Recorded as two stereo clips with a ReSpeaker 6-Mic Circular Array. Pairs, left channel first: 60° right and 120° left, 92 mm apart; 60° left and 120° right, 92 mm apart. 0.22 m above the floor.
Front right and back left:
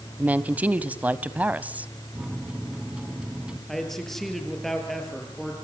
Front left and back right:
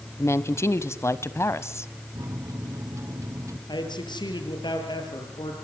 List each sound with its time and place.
0.2 s a woman speaking: 60° left, 1.0 m
2.1 s a microwave: 165° right, 1.4 m
3.7 s a man speaking: 25° left, 6 m